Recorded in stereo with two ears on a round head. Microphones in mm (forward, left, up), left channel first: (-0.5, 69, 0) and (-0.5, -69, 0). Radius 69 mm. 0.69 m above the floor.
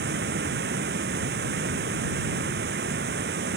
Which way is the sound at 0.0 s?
75° right (ahead or behind).